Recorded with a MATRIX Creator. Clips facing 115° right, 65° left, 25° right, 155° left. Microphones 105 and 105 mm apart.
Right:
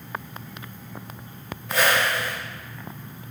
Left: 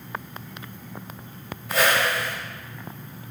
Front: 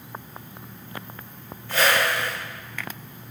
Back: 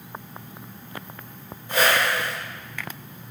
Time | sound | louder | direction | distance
1.7 | a whoosh | even, even | 150° left | 1.1 m